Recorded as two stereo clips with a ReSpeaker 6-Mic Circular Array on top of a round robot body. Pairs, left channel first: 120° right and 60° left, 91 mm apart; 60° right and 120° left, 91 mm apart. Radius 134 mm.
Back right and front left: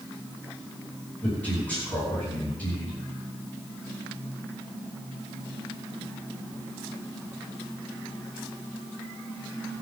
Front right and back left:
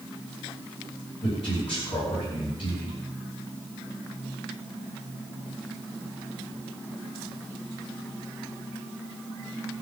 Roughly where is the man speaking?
Ahead right.